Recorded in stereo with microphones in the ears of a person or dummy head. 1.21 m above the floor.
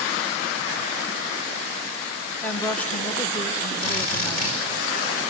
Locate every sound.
2.4 s a woman speaking: 5° left (ahead or behind), 1.0 m
3.8 s a drill: 45° left (ahead or behind), 5 m